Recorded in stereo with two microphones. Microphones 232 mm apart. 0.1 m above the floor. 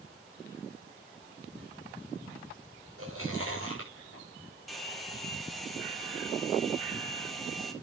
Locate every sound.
3.0 s chewing: 70° right (ahead or behind), 6 m
4.7 s a hair dryer: centre (ahead or behind), 2 m